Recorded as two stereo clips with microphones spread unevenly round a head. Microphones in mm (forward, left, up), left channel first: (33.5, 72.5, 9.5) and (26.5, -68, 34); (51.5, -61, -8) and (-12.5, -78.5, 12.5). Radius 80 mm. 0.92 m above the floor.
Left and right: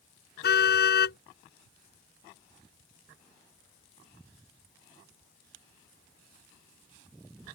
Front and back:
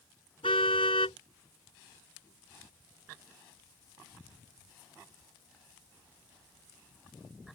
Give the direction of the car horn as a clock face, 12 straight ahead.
10 o'clock.